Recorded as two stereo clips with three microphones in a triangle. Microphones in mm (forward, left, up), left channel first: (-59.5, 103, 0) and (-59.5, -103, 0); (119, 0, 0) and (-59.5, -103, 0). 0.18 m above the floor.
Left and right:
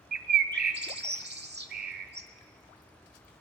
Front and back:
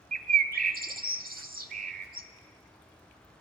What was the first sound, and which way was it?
A bird, 110° right.